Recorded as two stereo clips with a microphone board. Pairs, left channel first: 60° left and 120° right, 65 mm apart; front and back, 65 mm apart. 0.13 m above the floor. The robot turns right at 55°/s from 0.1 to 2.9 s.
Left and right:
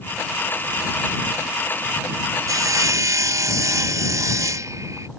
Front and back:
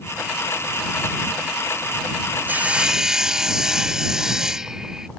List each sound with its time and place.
2.5 s sawing: 125° right; by 5.1 s 100° right